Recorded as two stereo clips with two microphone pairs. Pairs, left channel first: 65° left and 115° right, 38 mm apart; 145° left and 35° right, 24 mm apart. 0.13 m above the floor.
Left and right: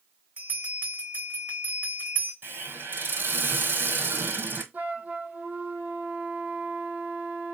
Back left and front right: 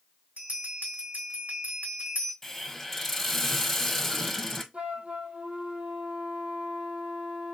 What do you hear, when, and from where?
0.4 s a bell: 65° right, 3 m
2.4 s a hiss: 135° right, 1.1 m
4.7 s a flute: 70° right, 1.2 m